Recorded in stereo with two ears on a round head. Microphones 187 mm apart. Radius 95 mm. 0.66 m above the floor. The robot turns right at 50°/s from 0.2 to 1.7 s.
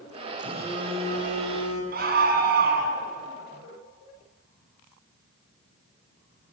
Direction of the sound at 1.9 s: 50° right (ahead or behind).